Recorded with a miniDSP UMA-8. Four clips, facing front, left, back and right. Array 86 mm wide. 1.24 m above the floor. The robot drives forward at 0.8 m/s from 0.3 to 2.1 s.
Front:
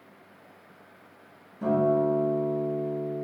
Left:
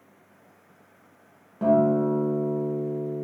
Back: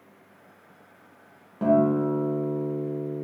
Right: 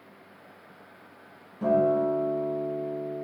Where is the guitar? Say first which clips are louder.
Left 2 dB, back 2 dB; 150° left, 0.9 m; by 3.2 s 160° left, 1.3 m.